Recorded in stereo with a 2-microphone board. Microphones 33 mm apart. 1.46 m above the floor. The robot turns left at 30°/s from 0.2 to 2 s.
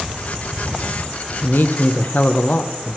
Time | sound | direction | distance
1.4 | a man speaking | 80° left | 1.0 m